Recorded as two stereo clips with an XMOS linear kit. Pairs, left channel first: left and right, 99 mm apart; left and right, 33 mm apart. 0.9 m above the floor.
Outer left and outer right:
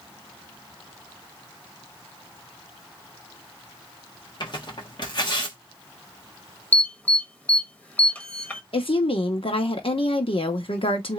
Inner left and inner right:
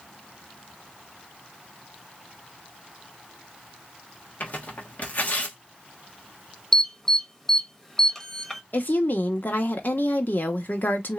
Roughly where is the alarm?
Centre.